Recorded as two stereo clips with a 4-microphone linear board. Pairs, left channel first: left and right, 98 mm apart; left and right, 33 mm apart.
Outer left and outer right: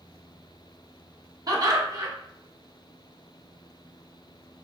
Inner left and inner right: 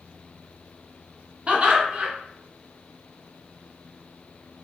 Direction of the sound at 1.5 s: 40° right (ahead or behind).